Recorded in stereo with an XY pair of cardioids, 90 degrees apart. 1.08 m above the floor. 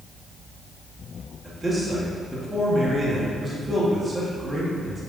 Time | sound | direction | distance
1.4 | a man speaking | 30° right | 2 m